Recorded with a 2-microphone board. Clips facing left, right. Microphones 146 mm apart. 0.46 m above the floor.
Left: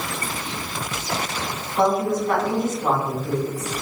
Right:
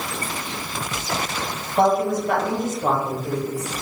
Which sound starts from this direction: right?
A woman speaking, at 1.8 s.